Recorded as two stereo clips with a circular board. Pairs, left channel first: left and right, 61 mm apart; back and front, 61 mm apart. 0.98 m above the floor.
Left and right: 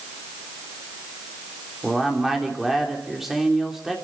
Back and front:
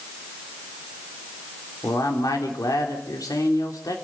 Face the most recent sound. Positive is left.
turn(degrees=-175)